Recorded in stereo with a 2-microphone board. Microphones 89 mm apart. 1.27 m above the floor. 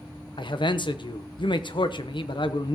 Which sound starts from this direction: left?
A man speaking, at 0.4 s.